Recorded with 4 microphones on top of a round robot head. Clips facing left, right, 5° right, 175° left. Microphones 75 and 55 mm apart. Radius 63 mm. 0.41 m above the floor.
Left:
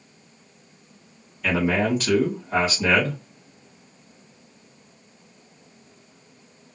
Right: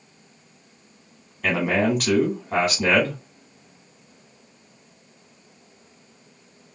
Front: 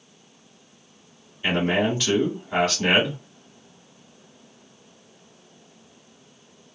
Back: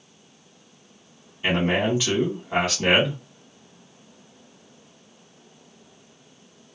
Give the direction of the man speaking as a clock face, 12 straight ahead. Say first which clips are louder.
Right 1 dB, even; 4 o'clock.